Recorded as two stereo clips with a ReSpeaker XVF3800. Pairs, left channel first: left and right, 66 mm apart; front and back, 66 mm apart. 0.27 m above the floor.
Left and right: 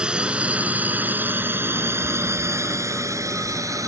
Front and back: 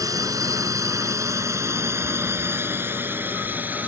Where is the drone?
165° right; by 3.9 s 115° right.